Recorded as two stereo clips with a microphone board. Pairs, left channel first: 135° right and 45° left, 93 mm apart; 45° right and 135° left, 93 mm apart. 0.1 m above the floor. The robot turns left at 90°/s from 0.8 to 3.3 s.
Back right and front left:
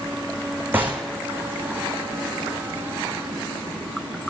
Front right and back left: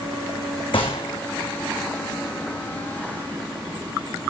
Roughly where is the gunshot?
Ahead right.